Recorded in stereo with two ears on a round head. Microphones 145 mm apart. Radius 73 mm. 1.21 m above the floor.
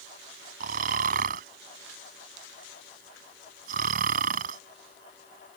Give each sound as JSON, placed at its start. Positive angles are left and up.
{"t": 0.6, "sound": "snoring", "side_deg": -55}